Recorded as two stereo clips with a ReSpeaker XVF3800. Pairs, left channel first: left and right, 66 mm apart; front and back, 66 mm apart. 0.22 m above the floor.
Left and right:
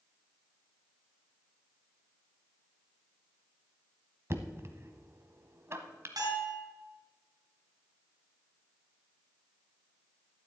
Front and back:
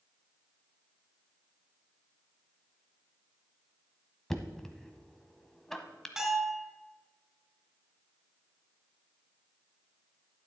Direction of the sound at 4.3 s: 80° right.